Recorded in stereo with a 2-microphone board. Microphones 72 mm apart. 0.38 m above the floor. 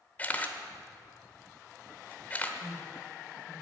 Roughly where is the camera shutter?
Left.